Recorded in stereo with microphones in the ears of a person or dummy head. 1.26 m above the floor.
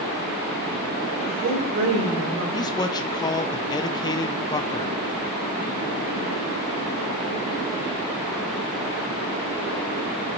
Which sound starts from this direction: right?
A woman speaking, at 1.2 s.